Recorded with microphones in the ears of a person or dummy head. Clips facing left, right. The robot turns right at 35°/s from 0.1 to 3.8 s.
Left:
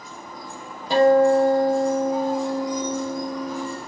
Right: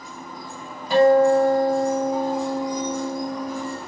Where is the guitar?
35° left, 0.9 m; by 3.8 s 135° left, 0.9 m.